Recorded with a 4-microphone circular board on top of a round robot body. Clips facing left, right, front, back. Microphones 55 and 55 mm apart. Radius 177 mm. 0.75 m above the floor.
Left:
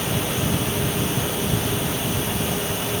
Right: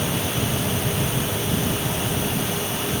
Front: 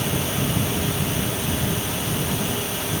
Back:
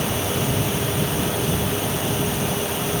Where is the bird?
I don't hear a bird.